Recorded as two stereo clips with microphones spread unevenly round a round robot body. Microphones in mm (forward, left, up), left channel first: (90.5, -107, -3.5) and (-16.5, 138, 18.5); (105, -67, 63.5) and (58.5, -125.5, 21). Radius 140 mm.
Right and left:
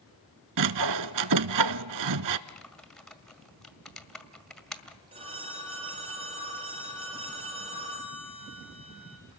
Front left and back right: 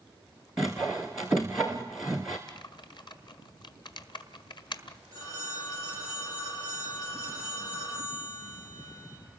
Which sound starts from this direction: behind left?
Sawing, at 0.6 s.